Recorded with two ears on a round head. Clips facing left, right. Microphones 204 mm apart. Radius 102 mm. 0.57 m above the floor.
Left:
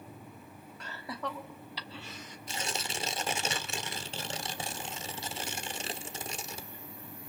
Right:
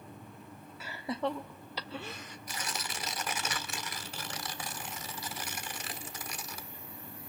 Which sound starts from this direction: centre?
Laughter, at 0.8 s.